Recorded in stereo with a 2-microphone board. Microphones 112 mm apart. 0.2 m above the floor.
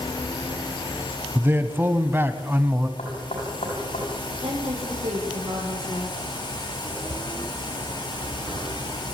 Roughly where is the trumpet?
I don't hear a trumpet.